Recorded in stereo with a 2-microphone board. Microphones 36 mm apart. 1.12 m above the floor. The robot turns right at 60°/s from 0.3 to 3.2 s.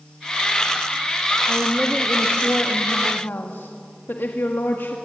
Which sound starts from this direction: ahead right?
A woman speaking, at 1.5 s.